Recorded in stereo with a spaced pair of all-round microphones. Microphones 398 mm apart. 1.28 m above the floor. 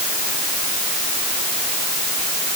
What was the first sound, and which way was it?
Only background noise.